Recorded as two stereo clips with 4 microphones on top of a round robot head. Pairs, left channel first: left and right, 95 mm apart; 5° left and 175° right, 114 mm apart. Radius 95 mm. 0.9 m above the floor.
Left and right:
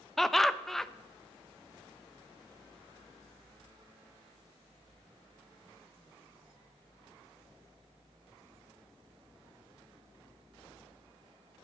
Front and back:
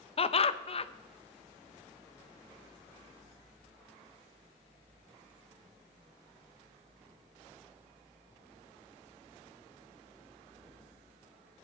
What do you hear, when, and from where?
0.2 s laughter: 5° left, 0.9 m